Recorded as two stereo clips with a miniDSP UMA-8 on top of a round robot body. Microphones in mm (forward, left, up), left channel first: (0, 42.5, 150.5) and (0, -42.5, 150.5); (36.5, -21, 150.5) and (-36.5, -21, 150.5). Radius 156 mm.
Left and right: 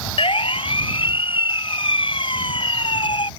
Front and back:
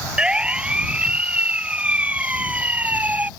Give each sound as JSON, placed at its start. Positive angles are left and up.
{"t": 0.2, "sound": "a siren", "azimuth_deg": 105}